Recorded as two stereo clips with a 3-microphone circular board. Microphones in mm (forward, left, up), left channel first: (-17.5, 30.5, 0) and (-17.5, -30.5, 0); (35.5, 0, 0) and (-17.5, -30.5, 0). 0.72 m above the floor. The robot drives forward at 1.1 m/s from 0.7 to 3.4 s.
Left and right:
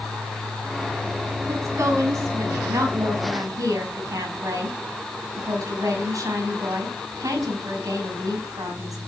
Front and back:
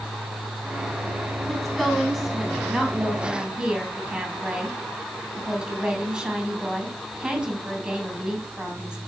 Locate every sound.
1.5 s a woman speaking: 55° right, 7.5 m; by 9.0 s 75° right, 6.5 m